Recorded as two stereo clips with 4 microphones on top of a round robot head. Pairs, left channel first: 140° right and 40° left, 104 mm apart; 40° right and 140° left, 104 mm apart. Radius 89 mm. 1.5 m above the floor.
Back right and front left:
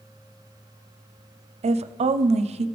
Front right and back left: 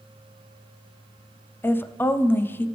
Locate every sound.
1.6 s a woman speaking: 30° left, 0.5 m